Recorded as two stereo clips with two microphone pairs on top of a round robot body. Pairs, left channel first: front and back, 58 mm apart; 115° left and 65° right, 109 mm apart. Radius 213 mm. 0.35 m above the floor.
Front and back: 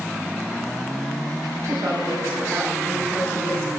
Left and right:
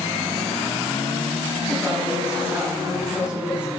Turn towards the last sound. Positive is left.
turn(degrees=-145)